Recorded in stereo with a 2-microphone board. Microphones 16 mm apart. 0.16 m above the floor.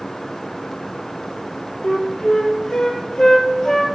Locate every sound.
1.8 s a flute: 65° left (ahead or behind), 1.2 m